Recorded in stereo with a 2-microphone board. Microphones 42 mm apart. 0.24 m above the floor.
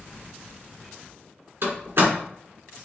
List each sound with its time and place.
1.6 s a door slam: 70° right (ahead or behind), 1.8 m